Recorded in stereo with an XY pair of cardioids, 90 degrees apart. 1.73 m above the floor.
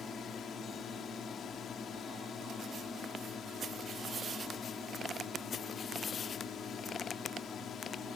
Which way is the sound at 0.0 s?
65° left.